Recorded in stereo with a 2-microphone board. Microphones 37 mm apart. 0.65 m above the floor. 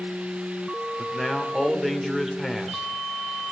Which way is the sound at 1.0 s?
Centre (ahead or behind).